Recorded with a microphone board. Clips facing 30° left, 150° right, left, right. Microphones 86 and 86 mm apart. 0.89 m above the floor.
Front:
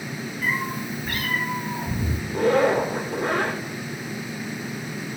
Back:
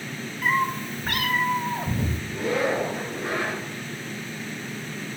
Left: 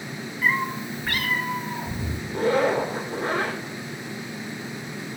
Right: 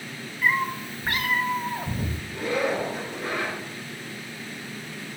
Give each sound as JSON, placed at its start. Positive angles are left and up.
{"t": 0.4, "sound": "a cat meowing", "azimuth_deg": 180, "distance_m": 1.1}
{"t": 2.3, "sound": "a zipper", "azimuth_deg": 45, "distance_m": 3.0}